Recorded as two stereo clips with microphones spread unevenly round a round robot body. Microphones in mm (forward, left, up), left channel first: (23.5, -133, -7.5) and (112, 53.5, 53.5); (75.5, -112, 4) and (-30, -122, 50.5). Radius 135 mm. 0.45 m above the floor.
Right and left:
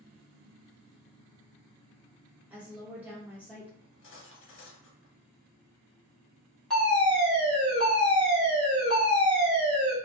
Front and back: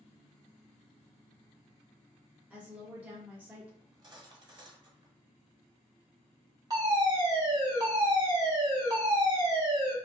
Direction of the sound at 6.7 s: 115° right.